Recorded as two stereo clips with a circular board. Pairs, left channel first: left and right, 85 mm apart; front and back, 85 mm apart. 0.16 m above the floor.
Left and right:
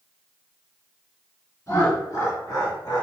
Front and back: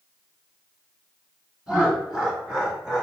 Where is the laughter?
100° left, 2.0 m; by 3.0 s 95° left, 2.5 m.